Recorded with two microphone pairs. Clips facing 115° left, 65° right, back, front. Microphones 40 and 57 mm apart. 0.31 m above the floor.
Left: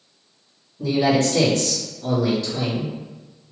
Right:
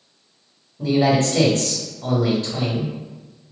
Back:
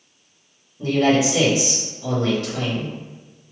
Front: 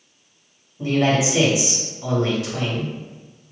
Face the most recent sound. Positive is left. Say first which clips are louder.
# right 1 dB, back 2 dB
turn(degrees=-75)